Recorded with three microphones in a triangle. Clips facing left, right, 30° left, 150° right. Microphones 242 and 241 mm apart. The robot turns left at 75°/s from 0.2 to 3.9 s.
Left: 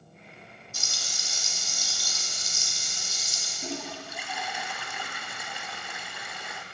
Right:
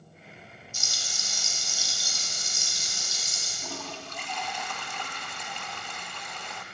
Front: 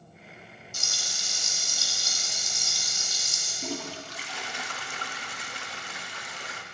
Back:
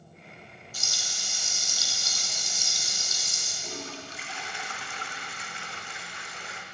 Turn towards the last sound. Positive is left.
turn(degrees=10)